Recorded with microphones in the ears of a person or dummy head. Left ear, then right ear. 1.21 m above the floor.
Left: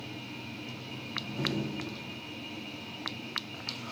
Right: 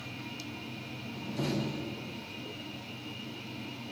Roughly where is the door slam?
Right.